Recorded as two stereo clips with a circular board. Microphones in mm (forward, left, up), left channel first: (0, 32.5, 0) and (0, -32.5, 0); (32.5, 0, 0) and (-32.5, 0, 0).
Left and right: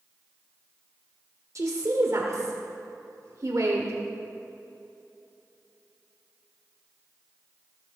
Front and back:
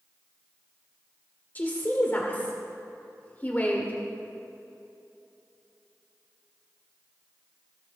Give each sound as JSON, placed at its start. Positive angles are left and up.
{"t": 1.6, "sound": "a woman speaking", "azimuth_deg": -60, "distance_m": 1.4}